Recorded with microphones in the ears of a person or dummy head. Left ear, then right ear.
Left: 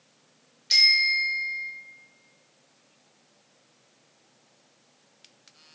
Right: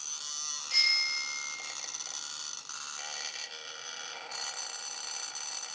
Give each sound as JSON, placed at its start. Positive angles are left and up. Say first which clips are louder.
{"t": 0.7, "sound": "a bicycle bell", "louder": "left 8 dB", "side_deg": 65, "distance_m": 4.0}